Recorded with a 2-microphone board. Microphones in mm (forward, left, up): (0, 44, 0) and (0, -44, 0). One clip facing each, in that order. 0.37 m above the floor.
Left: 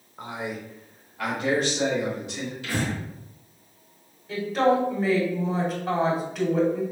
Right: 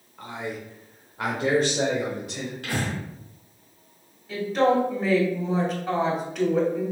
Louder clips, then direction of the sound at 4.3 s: Even; centre (ahead or behind).